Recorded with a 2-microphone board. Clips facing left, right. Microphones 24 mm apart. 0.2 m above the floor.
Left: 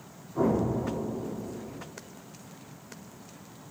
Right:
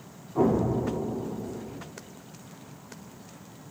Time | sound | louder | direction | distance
0.3 | an explosion | right 2 dB | 75° right (ahead or behind) | 2 m